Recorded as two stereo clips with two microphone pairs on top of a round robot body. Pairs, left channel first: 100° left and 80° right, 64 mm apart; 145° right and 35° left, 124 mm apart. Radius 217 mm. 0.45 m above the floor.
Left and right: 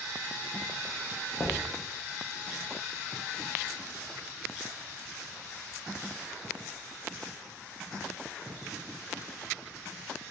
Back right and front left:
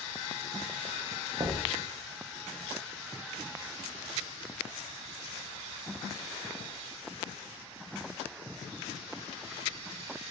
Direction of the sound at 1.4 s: 75° left.